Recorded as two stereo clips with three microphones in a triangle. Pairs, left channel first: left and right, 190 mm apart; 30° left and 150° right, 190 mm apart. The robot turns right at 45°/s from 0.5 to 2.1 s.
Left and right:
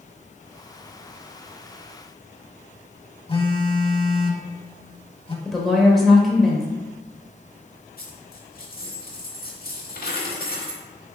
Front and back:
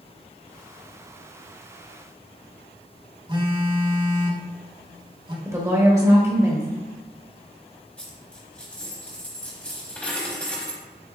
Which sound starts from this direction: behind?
A woman speaking, at 5.5 s.